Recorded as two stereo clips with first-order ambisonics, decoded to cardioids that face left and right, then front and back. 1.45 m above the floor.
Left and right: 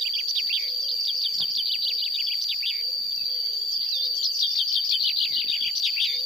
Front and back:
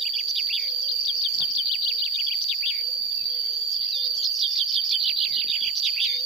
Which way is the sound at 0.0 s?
170° right.